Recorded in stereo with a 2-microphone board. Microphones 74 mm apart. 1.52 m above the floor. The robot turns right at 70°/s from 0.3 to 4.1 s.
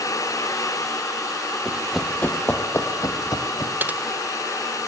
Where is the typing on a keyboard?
25° right (ahead or behind), 0.8 m; by 4.0 s 15° right (ahead or behind), 0.8 m.